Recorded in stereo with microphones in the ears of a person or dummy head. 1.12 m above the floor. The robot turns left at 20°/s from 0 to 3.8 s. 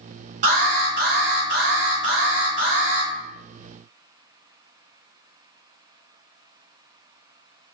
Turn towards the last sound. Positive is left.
turn(degrees=-110)